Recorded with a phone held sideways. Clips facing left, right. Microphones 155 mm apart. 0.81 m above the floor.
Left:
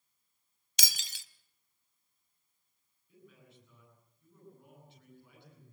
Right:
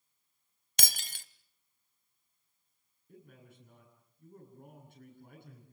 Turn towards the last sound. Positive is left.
turn(degrees=-50)  # may be behind; listen again after turning